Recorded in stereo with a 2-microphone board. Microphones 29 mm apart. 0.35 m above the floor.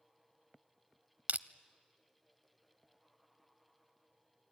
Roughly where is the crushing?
Right.